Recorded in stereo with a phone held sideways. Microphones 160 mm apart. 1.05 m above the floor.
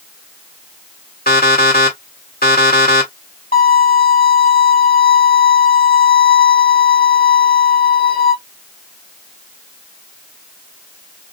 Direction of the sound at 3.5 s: 60° left (ahead or behind).